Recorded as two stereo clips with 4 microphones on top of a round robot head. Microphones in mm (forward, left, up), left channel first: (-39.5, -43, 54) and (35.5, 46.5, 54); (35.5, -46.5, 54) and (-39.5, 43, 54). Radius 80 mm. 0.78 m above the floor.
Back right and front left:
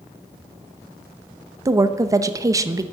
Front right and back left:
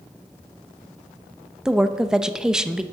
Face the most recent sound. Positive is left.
turn(degrees=55)